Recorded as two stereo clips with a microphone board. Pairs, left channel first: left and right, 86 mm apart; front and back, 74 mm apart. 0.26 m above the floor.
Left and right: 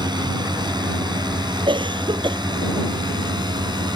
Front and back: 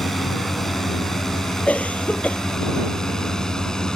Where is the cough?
70° right.